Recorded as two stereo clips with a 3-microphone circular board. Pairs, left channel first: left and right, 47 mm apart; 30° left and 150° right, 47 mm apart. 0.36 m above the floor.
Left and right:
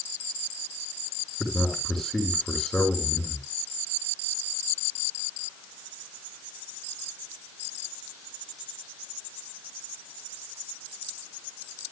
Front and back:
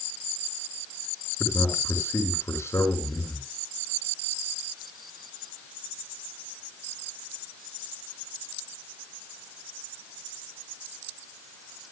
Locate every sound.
1.4 s a man speaking: 10° left, 4.5 m